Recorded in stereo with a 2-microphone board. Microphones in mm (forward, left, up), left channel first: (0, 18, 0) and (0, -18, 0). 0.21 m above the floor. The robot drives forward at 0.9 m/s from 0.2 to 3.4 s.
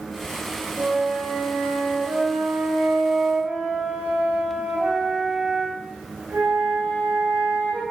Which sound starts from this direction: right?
A flute, at 0.8 s.